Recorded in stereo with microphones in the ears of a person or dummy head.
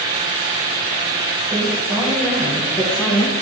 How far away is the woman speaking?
About 1.9 m.